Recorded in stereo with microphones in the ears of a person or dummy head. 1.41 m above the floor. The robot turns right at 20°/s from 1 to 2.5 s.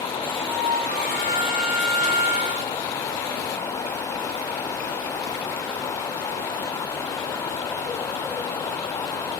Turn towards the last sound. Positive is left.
turn(degrees=-125)